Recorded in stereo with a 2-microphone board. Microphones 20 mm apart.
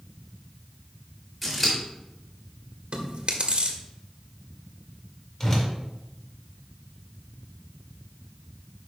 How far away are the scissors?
About 4 m.